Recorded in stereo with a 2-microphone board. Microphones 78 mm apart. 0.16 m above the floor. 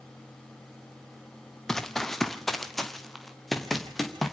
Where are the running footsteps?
5° left (ahead or behind), 1.5 m; by 4.3 s centre (ahead or behind), 4 m.